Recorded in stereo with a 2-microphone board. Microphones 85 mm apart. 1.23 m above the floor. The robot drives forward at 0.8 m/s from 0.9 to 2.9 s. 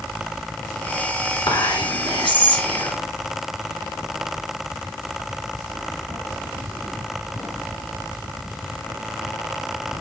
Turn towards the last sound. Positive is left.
turn(degrees=75)  # may be behind; listen again after turning